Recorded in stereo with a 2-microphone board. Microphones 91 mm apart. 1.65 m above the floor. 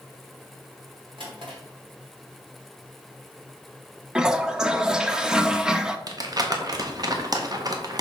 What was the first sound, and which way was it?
A drawer, 65° right (ahead or behind).